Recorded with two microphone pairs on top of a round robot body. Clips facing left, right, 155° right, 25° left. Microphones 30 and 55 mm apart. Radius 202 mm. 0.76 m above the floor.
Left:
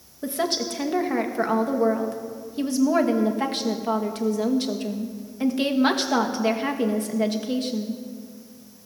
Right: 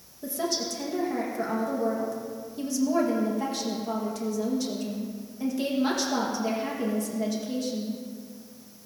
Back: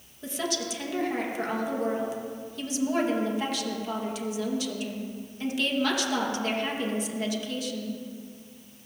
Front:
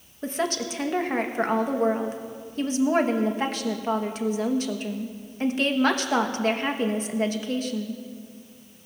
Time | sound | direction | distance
0.2 | a woman speaking | 55° left | 1.4 m